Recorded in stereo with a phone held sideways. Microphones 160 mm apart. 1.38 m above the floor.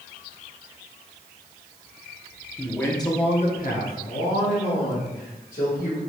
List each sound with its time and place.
2.6 s a man speaking: 5° left (ahead or behind), 1.0 m; by 6.0 s 70° left (ahead or behind), 1.9 m